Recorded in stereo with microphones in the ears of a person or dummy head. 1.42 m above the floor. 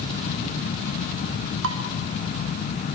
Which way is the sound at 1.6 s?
80° right.